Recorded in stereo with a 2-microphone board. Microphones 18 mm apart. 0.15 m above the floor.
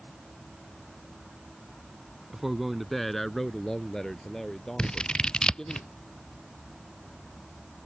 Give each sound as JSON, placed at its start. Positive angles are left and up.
{"t": 2.3, "sound": "a man speaking", "side_deg": -20}
{"t": 4.8, "sound": "scissors", "side_deg": 60}